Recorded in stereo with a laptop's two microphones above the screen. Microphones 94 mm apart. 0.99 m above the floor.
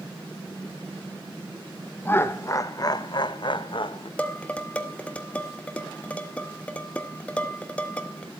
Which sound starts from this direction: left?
Laughter, at 2.0 s.